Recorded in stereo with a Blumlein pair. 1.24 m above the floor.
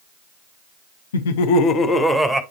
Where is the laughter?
70° left, 1.0 m; by 2.4 s 5° right, 1.4 m.